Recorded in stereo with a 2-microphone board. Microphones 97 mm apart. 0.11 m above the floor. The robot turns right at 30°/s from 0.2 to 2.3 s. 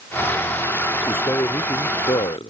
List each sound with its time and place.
1.1 s a man speaking: 25° left; by 2.5 s 65° left